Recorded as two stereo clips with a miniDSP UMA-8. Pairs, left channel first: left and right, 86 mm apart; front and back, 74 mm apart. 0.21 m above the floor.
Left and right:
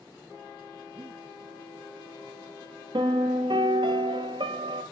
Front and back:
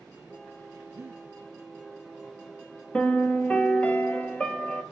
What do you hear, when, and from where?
0.9 s breathing: 120° right, 1.1 m
2.9 s a piano: 75° right, 0.7 m